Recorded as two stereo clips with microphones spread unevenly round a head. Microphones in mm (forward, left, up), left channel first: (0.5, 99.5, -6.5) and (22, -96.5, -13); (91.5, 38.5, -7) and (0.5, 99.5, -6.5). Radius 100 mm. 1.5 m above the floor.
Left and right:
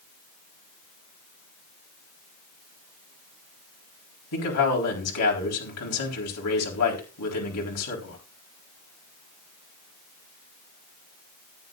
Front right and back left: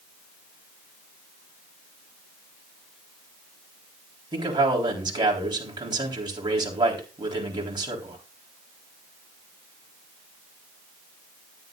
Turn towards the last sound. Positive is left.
turn(degrees=100)